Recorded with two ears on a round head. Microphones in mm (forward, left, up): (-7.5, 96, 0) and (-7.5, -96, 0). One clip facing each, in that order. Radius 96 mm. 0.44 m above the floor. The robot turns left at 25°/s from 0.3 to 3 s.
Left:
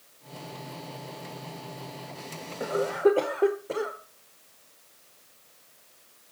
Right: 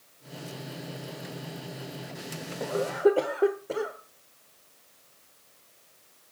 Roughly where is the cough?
Centre.